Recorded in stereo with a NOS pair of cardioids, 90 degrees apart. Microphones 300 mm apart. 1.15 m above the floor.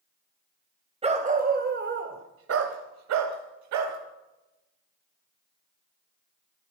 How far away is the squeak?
No squeak in this recording.